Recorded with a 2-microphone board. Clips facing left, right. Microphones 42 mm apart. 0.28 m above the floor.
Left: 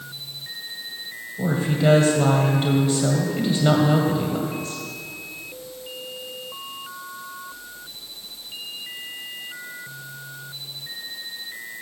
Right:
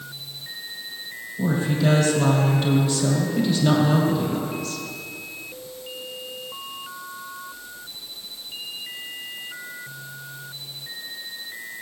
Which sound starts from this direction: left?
A woman speaking, at 1.4 s.